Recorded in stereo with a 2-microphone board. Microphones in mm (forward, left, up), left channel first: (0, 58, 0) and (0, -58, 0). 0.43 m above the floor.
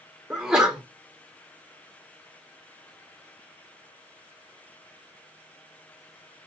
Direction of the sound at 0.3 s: 5° right (ahead or behind).